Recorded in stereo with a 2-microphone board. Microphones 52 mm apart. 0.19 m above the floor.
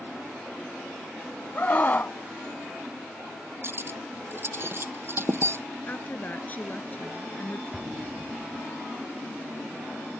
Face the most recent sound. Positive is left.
turn(degrees=-5)  # may be behind; listen again after turning